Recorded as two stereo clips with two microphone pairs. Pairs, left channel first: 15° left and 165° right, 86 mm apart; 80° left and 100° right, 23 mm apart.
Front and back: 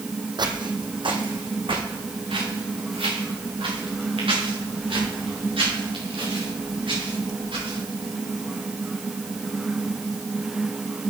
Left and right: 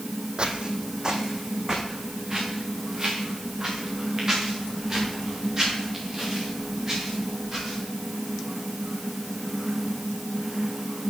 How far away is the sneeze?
I don't hear a sneeze.